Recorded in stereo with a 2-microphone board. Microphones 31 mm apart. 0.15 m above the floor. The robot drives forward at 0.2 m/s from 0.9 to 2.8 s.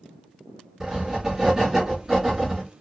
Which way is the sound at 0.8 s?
15° right (ahead or behind).